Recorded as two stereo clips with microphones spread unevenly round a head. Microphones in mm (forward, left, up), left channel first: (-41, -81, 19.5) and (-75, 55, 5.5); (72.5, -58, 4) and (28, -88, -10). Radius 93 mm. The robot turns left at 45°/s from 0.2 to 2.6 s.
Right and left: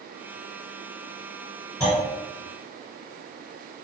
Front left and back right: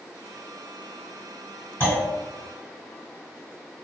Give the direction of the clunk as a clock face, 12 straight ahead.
12 o'clock.